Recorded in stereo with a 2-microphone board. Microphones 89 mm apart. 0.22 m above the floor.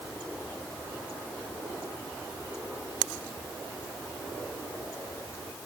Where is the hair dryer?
I don't hear a hair dryer.